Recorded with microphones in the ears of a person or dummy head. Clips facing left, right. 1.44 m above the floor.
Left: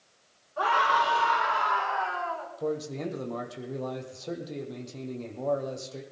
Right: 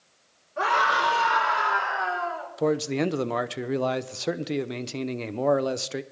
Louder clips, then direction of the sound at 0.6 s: Right 1 dB; 30° right (ahead or behind).